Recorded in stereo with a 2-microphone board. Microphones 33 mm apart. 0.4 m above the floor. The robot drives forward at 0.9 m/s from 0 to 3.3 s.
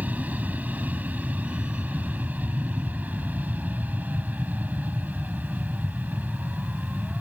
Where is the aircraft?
55° right (ahead or behind).